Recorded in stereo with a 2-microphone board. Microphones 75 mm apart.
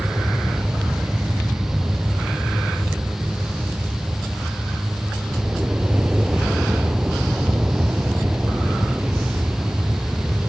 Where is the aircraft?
15° right (ahead or behind).